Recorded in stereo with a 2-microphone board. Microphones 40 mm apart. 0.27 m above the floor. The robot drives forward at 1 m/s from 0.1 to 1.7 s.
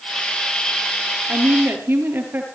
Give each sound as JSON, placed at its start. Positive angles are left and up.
{"t": 1.3, "sound": "a woman speaking", "side_deg": -50, "distance_m": 6.0}